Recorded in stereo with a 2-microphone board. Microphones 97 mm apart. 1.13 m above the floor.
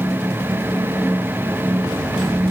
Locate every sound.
Only background noise.